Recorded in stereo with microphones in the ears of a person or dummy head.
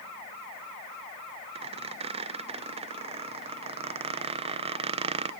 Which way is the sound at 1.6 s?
35° right (ahead or behind).